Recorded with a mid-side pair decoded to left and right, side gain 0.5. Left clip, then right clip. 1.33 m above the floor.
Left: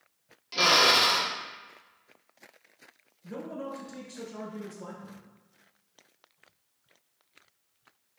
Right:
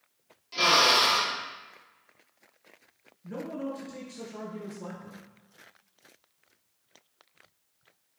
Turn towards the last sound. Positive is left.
turn(degrees=20)